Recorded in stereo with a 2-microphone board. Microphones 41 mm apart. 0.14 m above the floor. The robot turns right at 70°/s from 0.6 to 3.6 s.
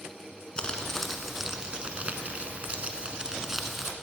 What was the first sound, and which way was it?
Crumpling, 140° left.